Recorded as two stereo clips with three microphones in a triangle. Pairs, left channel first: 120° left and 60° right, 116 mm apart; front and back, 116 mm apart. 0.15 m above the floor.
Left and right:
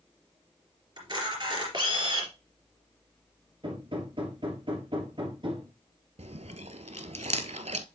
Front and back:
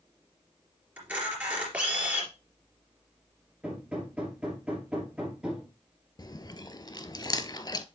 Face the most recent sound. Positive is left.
turn(degrees=-50)